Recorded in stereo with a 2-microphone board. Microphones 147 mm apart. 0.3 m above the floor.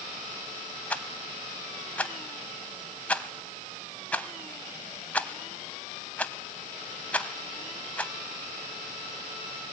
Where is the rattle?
10° left (ahead or behind), 0.8 m.